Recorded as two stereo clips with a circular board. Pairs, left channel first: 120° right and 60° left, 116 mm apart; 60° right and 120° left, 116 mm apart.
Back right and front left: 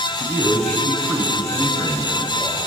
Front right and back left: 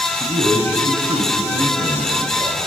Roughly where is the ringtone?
I don't hear a ringtone.